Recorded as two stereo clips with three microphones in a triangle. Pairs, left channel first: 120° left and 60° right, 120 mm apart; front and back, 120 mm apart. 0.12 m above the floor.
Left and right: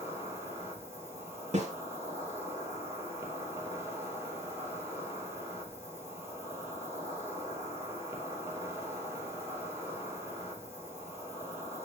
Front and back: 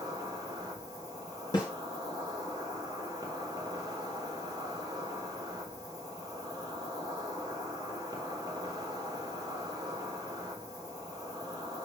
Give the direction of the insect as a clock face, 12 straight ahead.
4 o'clock.